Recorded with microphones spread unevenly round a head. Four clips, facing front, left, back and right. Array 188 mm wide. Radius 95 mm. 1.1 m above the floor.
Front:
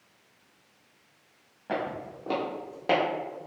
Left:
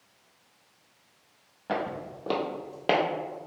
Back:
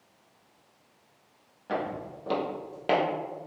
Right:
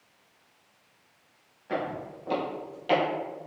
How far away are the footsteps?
About 1.8 m.